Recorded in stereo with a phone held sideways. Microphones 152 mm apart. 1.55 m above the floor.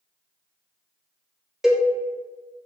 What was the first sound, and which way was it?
A cowbell, centre (ahead or behind).